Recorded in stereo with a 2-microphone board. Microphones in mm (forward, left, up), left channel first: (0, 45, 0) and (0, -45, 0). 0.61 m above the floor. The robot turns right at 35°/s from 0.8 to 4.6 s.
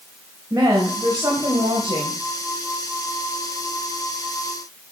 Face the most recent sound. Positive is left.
turn(degrees=-10)